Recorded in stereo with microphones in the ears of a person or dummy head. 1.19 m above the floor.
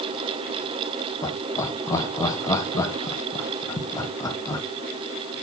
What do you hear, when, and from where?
1.2 s laughter: 20° left (ahead or behind), 1.4 m